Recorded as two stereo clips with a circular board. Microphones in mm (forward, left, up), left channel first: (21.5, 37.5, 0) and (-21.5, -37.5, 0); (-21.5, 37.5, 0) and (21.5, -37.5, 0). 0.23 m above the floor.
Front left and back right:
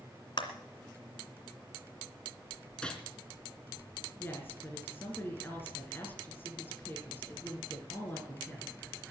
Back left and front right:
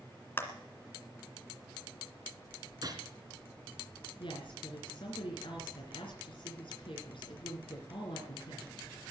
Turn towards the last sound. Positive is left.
turn(degrees=125)